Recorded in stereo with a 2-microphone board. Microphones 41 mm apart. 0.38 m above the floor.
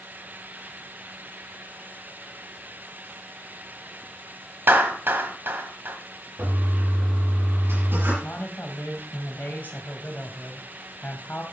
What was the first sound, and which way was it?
A clap, 65° right (ahead or behind).